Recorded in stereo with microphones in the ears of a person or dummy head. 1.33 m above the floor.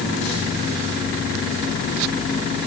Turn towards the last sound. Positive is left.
No sound to turn to.